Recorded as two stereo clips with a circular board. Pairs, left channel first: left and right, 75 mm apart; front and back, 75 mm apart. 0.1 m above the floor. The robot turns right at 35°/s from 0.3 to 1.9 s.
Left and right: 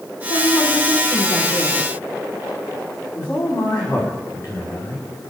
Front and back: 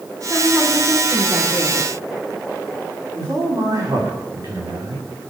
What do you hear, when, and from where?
0.3 s a woman speaking: 95° left, 7.5 m; by 1.9 s 155° left, 7.5 m
3.1 s a man speaking: 145° left, 10 m